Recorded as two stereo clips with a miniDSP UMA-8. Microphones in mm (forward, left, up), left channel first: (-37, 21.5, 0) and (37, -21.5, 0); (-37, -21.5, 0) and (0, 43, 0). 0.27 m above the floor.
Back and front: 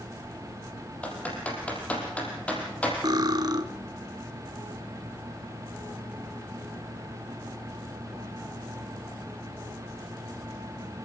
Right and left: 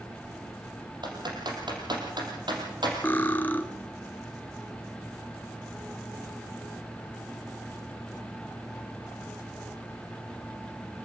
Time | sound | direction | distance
1.0 | typing on a keyboard | 75° left | 5.5 m
3.0 | cutlery clinking | 60° right | 1.4 m